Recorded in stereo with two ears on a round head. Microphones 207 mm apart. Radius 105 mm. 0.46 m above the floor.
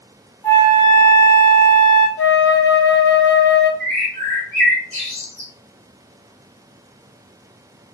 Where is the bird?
10° left (ahead or behind), 1.2 m.